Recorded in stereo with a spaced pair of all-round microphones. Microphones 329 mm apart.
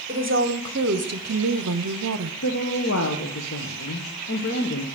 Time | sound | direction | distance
0.1 | a woman speaking | 35° right (ahead or behind) | 1.3 m
2.4 | a woman speaking | 50° left (ahead or behind) | 1.1 m